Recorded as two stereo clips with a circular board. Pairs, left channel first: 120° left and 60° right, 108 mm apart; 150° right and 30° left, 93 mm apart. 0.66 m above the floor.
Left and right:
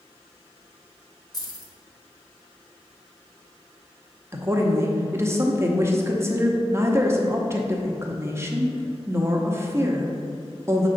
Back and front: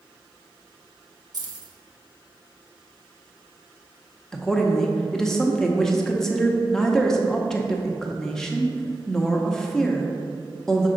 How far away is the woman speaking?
About 0.8 m.